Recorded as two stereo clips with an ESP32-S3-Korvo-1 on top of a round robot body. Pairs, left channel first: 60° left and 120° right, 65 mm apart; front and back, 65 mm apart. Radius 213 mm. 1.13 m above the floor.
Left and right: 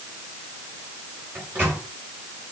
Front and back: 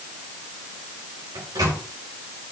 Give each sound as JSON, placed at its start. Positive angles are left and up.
{"t": 1.4, "sound": "a microwave", "azimuth_deg": 180, "distance_m": 6.0}